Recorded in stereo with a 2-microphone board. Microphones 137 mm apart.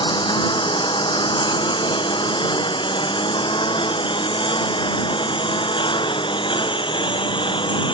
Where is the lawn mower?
35° left (ahead or behind).